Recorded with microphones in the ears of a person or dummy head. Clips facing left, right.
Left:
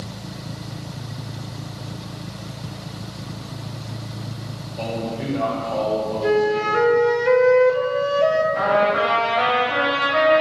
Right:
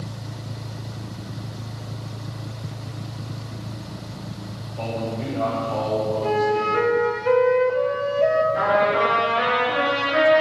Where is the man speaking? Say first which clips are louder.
Left 1 dB; 15° left (ahead or behind), 4 m; by 6.9 s 10° right (ahead or behind), 3 m.